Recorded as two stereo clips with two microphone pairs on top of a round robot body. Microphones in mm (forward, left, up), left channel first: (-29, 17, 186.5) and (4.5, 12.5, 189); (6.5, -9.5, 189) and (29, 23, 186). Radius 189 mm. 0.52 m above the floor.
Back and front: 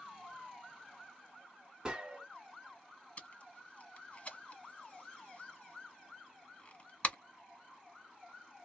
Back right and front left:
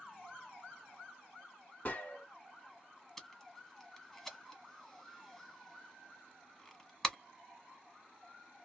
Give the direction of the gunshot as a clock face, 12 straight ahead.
3 o'clock.